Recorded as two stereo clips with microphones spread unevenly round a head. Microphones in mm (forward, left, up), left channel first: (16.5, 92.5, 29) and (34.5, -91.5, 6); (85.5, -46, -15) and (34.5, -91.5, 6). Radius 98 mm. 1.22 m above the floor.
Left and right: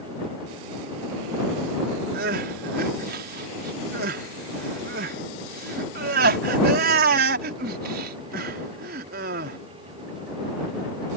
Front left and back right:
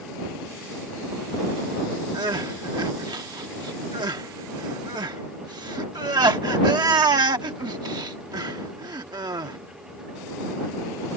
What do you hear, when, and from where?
2.1 s crying: 130° right